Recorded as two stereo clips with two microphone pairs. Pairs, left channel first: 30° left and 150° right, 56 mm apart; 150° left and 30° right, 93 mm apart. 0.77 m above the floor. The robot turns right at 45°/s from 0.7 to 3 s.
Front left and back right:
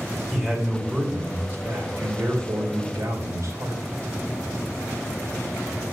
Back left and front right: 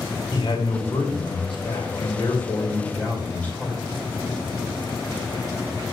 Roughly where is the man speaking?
Behind left.